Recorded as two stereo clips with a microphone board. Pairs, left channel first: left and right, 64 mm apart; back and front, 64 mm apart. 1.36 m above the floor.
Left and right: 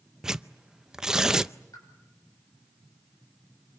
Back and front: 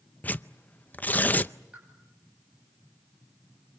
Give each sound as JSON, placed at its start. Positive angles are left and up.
{"t": 0.2, "sound": "tearing paper", "azimuth_deg": -160, "distance_m": 0.5}
{"t": 1.7, "sound": "a pop", "azimuth_deg": 70, "distance_m": 9.5}